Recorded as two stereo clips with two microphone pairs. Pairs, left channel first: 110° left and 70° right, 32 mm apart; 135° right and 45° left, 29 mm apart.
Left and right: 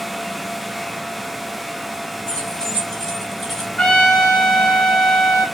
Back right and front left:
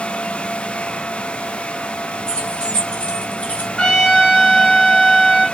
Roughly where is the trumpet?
Behind.